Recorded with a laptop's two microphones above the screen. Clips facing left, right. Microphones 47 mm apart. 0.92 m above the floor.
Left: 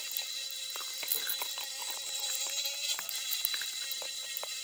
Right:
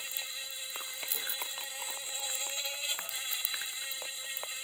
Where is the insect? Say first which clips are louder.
Right 1 dB; 20° right (ahead or behind).